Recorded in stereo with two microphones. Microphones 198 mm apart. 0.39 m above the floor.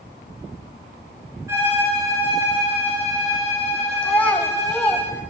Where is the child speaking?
10° left (ahead or behind), 1.7 m.